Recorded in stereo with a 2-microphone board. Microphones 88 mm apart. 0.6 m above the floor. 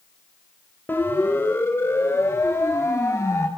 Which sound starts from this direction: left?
A siren, at 0.9 s.